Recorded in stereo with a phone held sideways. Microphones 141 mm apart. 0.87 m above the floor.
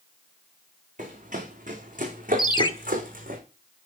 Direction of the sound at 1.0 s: 55° right (ahead or behind).